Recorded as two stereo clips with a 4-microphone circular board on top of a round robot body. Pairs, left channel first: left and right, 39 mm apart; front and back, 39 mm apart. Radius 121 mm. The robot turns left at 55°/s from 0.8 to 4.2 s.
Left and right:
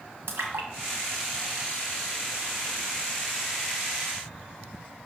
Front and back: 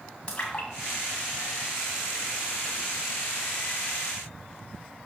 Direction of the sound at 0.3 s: 65° right.